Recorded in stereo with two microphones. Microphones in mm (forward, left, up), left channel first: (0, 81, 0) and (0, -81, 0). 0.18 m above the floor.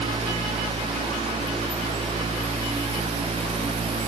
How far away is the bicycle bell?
No bicycle bell in this recording.